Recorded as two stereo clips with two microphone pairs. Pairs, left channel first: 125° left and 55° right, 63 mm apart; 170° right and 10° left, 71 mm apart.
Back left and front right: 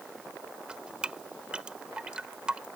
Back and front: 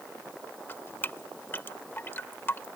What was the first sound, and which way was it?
Dripping, 125° right.